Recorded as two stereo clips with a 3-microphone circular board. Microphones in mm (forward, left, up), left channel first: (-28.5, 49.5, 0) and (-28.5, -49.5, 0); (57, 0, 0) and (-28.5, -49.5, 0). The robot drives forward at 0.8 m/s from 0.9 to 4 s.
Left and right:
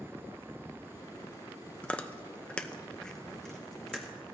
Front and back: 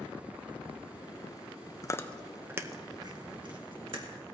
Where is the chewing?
20° left, 0.5 m; by 4.3 s 175° left, 1.5 m.